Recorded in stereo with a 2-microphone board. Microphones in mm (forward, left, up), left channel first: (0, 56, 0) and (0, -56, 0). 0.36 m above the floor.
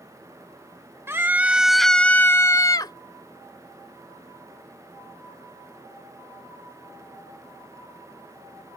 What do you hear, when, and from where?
1.1 s a scream: 25° right (ahead or behind); by 2.9 s 40° left (ahead or behind)